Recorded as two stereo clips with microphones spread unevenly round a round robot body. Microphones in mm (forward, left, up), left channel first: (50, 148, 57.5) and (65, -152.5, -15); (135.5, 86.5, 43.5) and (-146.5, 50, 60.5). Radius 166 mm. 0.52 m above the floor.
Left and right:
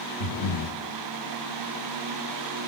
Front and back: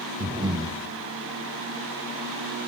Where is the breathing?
110° left, 0.8 m.